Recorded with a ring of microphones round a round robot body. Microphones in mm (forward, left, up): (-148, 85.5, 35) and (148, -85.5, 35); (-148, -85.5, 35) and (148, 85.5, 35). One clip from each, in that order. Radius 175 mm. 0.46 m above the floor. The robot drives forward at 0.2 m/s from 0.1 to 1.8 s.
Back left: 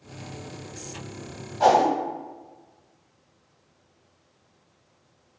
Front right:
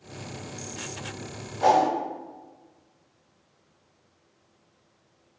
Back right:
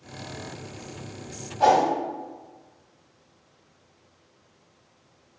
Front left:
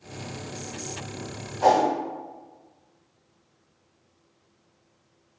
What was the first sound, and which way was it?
A whoosh, 170° left.